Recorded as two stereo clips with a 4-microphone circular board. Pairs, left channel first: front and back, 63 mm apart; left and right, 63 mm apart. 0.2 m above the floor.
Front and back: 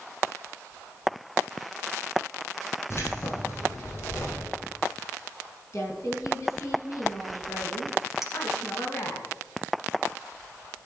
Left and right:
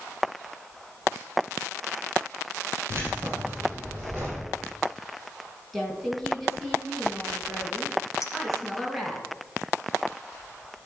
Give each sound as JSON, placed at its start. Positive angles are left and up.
{"t": 2.9, "sound": "keys jangling", "azimuth_deg": -40, "distance_m": 5.0}
{"t": 5.7, "sound": "a woman speaking", "azimuth_deg": 0, "distance_m": 2.5}
{"t": 8.2, "sound": "a clink", "azimuth_deg": 100, "distance_m": 1.0}